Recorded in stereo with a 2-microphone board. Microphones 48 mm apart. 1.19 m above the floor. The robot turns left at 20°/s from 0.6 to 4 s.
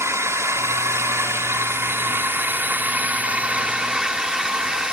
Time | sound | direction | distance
0.0 | a drone | 65° right (ahead or behind) | ?